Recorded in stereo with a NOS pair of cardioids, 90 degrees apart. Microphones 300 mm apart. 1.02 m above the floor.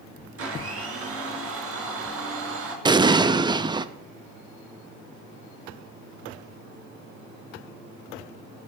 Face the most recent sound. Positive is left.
turn(degrees=-15)